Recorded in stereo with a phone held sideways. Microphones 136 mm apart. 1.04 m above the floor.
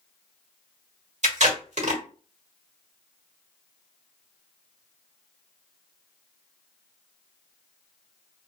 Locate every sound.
1.2 s tape being pulled: 60° right (ahead or behind), 1.2 m